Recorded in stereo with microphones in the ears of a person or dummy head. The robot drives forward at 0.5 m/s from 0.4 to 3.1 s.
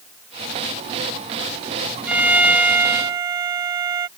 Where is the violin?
5° right (ahead or behind).